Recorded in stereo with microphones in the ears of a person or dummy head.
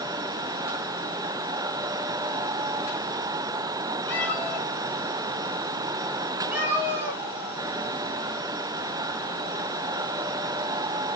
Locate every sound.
4.1 s a cat meowing: 10° left (ahead or behind), 7 m; by 7.2 s 15° right (ahead or behind), 7.5 m